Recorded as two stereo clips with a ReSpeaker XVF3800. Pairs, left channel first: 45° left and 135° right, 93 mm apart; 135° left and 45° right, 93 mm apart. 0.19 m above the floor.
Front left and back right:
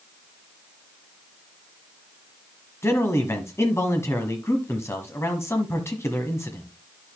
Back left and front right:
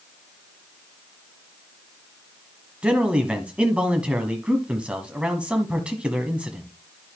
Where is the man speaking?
20° left, 1.3 m.